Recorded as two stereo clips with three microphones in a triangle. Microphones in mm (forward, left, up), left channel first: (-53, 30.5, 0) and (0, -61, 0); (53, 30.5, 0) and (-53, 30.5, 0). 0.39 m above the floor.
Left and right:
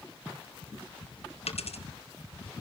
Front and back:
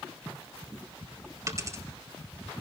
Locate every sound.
1.5 s a dropped coin: 120° left, 1.8 m